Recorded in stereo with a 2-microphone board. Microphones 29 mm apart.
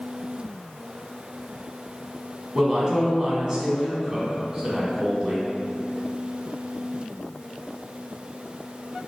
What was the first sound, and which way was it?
A woman speaking, 20° right (ahead or behind).